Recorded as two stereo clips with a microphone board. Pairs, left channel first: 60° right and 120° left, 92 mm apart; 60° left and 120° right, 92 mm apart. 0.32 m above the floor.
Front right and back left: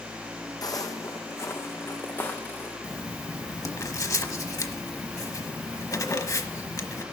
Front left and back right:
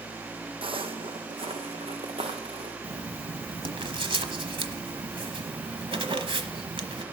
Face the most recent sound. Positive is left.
turn(degrees=-110)